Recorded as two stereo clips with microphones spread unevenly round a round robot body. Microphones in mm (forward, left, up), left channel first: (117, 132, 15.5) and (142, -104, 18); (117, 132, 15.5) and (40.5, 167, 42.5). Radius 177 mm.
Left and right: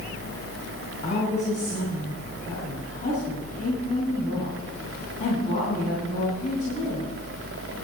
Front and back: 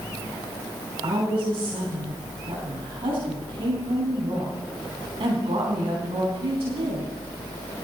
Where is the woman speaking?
165° left, 4 m.